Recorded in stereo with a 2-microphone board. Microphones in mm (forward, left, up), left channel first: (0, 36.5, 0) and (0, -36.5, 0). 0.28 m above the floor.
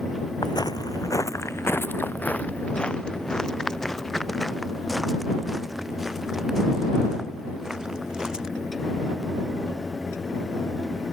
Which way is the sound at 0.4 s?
75° left (ahead or behind).